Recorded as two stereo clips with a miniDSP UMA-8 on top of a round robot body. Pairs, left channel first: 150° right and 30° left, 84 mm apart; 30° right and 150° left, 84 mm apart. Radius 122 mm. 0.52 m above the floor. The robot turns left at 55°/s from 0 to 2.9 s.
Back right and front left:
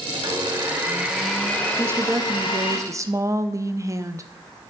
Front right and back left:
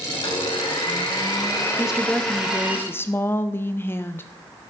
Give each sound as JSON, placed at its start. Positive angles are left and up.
{"t": 0.1, "sound": "a blender", "azimuth_deg": 0, "distance_m": 3.0}
{"t": 1.8, "sound": "a woman speaking", "azimuth_deg": 75, "distance_m": 0.8}